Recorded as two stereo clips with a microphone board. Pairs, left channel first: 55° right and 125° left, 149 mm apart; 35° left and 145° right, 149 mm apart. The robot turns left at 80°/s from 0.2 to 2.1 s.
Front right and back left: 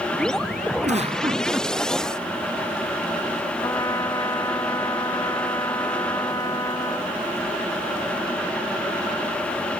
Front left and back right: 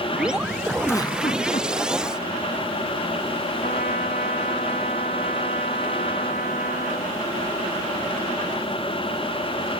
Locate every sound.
0.8 s a giggle: 110° left; by 1.7 s 40° left
3.6 s a trumpet: 10° left